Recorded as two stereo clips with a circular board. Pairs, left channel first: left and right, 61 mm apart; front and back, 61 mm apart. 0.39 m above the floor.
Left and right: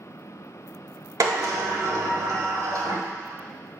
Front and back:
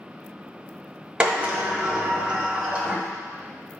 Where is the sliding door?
105° right, 1.1 m.